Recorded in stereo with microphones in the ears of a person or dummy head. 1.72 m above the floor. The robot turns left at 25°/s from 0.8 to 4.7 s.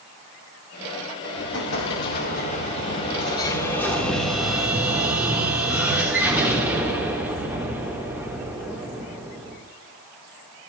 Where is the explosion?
70° left, 3.5 m; by 9.6 s 10° right, 3.5 m.